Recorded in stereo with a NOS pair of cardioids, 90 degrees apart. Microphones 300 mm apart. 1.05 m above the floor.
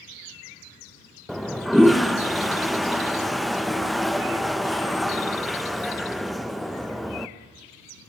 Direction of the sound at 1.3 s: Straight ahead.